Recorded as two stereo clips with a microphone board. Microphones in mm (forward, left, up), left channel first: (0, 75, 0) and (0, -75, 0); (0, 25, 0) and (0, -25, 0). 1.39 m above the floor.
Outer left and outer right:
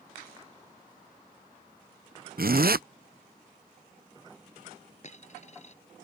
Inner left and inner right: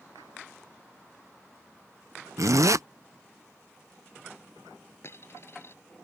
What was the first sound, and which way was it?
A zipper, 75° right (ahead or behind).